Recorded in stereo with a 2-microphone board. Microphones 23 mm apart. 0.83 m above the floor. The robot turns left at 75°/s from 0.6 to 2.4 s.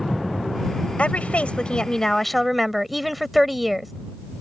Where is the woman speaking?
105° left; by 3.9 s straight ahead.